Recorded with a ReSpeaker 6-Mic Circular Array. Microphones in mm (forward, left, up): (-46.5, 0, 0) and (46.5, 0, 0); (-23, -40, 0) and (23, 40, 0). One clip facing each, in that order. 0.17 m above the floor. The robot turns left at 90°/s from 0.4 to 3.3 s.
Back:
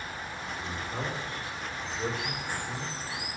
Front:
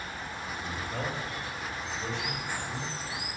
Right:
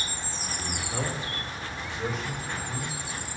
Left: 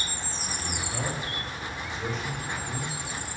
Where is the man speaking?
70° right, 4 m; by 2.9 s 80° left, 4 m.